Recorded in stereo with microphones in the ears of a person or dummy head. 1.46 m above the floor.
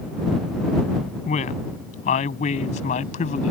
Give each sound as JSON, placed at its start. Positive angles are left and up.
{"t": 1.2, "sound": "a woman speaking", "side_deg": 40}